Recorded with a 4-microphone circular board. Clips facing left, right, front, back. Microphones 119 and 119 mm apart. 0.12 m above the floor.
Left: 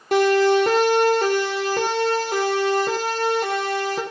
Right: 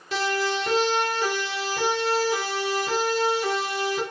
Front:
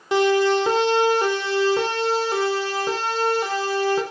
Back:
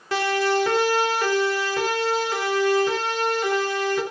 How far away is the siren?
About 5 m.